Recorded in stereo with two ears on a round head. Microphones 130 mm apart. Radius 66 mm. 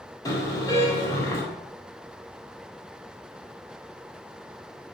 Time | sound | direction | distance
0.2 | a car horn | 25° left (ahead or behind) | 6.5 m